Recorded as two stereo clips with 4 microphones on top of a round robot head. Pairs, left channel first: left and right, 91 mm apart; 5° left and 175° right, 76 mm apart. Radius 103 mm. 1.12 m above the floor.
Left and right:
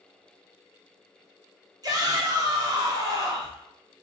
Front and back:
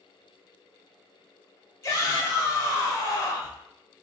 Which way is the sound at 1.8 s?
45° right.